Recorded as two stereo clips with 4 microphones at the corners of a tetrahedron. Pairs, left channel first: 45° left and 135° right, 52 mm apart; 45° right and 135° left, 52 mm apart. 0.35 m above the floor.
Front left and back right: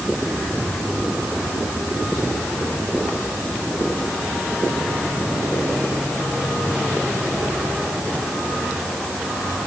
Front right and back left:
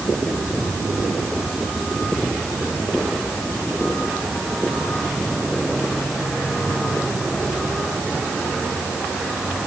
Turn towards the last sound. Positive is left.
No sound to turn to.